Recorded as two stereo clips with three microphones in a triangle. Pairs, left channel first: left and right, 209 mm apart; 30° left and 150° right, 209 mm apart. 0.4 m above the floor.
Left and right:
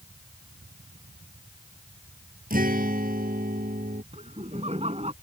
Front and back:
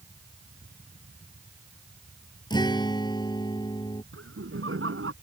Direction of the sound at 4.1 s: 150° right.